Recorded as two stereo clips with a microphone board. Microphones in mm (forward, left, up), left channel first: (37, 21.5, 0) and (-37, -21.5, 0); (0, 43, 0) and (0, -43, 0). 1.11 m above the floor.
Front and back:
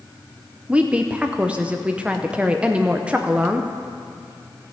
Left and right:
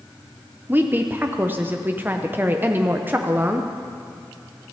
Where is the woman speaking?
100° right, 0.6 m.